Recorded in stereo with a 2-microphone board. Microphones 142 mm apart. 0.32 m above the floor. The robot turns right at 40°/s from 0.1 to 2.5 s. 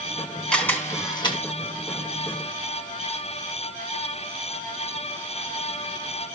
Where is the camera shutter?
5° left (ahead or behind), 3 m; by 1.4 s 40° left (ahead or behind), 3 m.